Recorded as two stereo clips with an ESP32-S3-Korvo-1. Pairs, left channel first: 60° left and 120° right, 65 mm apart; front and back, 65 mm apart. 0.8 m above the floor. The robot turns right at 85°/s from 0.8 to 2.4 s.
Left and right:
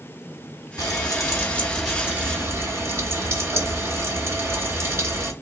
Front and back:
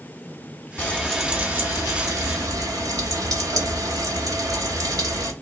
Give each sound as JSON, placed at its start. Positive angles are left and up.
{"t": 0.8, "sound": "frying", "azimuth_deg": 60, "distance_m": 1.0}